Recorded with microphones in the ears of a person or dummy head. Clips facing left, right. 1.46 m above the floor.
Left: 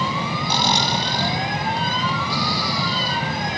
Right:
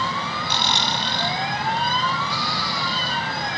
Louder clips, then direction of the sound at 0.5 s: Left 5 dB; 40° left (ahead or behind).